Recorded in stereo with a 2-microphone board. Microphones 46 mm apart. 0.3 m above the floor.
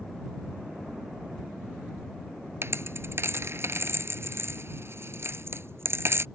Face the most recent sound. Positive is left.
turn(degrees=-65)  # may be behind; listen again after turning